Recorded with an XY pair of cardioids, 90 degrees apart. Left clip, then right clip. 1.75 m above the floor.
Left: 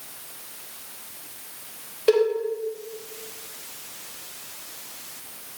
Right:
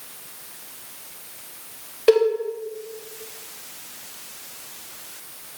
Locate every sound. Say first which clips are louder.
2.1 s a cowbell: right 3 dB; 15° right, 2 m